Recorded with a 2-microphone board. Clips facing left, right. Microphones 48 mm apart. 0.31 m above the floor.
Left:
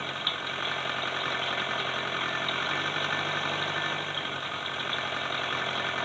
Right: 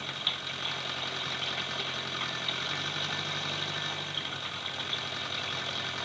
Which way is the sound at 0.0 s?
25° left (ahead or behind).